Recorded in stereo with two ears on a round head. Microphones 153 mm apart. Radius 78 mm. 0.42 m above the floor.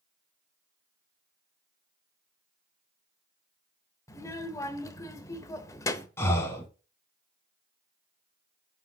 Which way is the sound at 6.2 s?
15° left (ahead or behind).